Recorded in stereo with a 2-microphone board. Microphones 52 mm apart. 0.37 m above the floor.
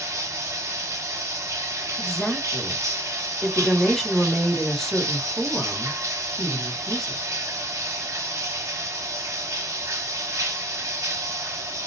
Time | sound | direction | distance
0.0 | running water | 75° right (ahead or behind) | 0.7 m
2.0 | a woman speaking | 5° left (ahead or behind) | 0.9 m